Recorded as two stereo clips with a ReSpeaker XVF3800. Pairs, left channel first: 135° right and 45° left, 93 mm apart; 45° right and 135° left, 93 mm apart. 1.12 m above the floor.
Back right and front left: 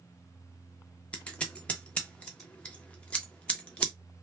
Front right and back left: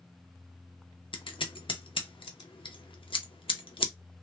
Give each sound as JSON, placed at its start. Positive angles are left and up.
{"t": 1.1, "sound": "scissors", "azimuth_deg": -60, "distance_m": 0.6}